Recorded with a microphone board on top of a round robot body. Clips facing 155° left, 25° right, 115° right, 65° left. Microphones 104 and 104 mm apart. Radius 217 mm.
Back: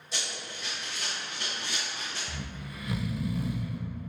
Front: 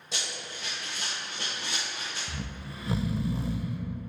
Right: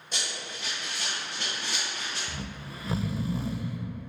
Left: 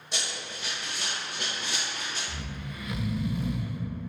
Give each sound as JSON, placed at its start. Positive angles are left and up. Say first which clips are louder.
{"t": 0.1, "sound": "running footsteps", "louder": "even, left 1 dB", "azimuth_deg": -20, "distance_m": 1.4}
{"t": 2.3, "sound": "snoring", "louder": "front 1 dB, even", "azimuth_deg": -70, "distance_m": 0.5}